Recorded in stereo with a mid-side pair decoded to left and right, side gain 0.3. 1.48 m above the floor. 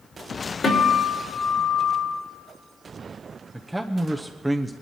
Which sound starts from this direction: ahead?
A man speaking, at 3.5 s.